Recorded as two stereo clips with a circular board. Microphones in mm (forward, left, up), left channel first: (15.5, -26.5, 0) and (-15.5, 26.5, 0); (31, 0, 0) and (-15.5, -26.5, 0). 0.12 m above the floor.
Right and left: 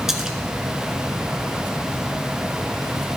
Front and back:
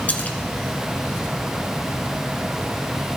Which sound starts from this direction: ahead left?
A splash, at 0.1 s.